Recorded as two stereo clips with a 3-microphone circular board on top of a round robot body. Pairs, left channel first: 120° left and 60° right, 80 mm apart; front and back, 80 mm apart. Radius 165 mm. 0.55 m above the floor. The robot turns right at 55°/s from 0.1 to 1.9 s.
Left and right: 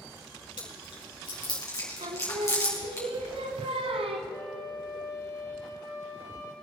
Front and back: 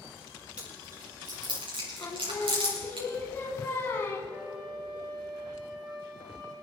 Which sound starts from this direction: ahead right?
Singing, at 2.0 s.